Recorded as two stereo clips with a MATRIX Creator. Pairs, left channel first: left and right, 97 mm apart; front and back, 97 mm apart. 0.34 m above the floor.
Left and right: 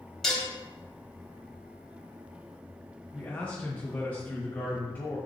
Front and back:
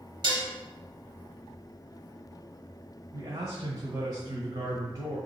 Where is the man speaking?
150° left, 1.3 m.